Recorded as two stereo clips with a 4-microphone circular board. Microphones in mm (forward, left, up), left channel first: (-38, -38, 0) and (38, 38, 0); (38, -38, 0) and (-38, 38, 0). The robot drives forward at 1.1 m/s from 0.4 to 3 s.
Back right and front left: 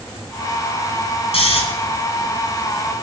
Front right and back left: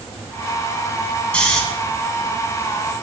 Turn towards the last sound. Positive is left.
turn(degrees=-150)